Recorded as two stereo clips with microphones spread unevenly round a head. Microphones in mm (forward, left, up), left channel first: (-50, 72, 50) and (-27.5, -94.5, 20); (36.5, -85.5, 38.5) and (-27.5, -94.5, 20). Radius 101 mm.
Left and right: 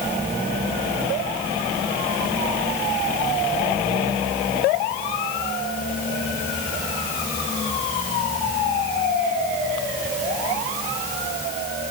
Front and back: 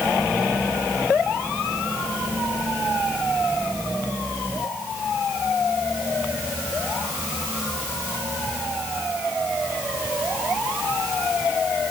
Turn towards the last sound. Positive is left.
No sound to turn to.